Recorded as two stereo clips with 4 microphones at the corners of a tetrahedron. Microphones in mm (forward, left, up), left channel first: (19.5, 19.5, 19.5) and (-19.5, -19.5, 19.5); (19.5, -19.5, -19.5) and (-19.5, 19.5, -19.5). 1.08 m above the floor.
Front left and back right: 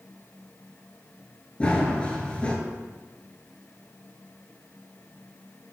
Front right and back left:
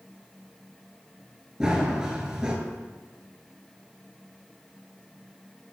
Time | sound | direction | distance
1.6 | running footsteps | 75° left | 1.1 m